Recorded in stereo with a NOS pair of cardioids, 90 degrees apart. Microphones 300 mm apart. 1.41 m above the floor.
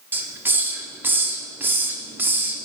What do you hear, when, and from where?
0.1 s a hiss: 5° right, 0.7 m